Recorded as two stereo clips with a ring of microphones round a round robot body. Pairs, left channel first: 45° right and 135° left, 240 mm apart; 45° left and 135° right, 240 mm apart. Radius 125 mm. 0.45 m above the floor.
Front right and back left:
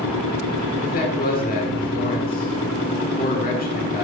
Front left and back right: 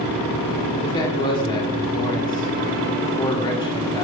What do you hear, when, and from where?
0.8 s a man speaking: 15° right, 1.7 m